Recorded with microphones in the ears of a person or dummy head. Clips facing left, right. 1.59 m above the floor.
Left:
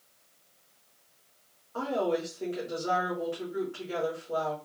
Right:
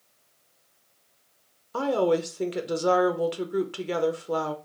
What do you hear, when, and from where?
1.7 s a woman speaking: 75° right (ahead or behind), 0.9 m